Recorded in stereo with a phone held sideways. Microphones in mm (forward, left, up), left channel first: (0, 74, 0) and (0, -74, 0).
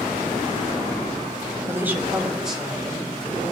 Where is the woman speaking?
20° right (ahead or behind), 0.7 m; by 3.4 s centre (ahead or behind), 2 m.